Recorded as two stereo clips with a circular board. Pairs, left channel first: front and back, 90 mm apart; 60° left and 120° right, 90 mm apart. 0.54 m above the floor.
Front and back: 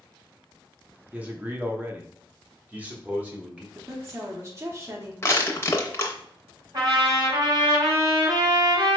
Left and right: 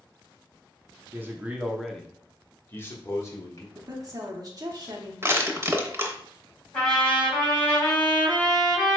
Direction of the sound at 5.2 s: 60° right.